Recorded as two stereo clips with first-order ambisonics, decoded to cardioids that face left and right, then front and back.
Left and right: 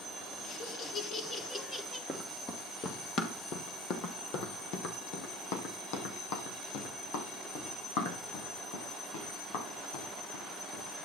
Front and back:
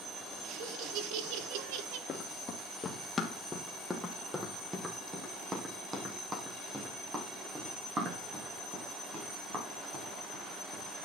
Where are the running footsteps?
25° left, 1.9 m; by 11.1 s 115° left, 7 m.